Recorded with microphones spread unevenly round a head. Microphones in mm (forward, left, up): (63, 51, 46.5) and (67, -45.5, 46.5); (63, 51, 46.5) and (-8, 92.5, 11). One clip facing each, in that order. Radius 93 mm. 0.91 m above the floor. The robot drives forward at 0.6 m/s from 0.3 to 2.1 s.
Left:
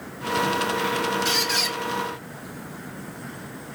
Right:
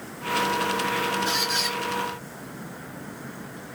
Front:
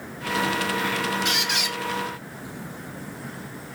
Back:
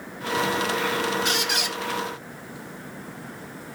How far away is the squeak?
About 0.8 m.